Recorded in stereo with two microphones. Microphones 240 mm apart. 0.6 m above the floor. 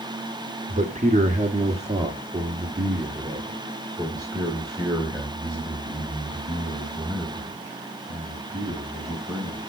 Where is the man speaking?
30° right (ahead or behind), 1.3 m; by 9.7 s 5° right (ahead or behind), 5.5 m.